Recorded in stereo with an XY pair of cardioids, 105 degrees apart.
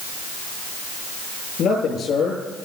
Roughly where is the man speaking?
Ahead left.